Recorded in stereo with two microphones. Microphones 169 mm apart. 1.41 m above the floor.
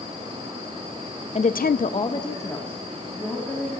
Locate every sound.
1.4 s a woman speaking: 40° left (ahead or behind), 0.6 m; by 3.7 s 10° left (ahead or behind), 3 m